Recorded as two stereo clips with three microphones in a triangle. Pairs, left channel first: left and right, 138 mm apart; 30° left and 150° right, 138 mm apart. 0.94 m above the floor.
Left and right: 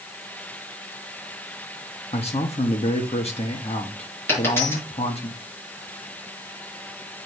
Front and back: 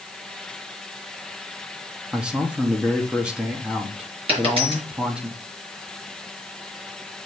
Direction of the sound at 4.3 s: 165° left.